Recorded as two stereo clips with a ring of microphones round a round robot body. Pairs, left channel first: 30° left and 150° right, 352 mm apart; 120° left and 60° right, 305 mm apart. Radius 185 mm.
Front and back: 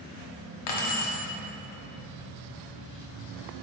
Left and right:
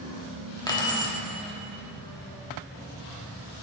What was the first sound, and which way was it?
Keys jangling, 45° left.